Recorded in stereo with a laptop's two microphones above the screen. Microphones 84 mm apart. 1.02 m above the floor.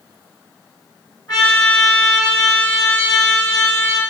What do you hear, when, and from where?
1.3 s a trumpet: 50° left (ahead or behind), 4.5 m